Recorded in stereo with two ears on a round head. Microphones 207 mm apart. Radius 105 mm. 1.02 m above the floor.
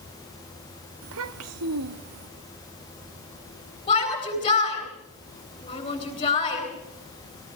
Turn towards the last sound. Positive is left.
turn(degrees=20)  # may be behind; listen again after turning